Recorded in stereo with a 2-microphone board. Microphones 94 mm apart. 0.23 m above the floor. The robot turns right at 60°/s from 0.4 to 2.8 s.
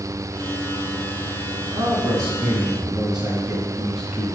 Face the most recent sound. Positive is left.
turn(degrees=-10)